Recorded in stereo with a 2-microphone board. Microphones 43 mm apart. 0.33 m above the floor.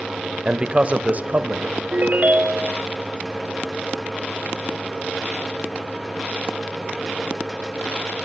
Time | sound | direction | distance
0.5 | a man speaking | 20° right (ahead or behind) | 1.1 m
1.9 | a ringtone | 45° right (ahead or behind) | 1.0 m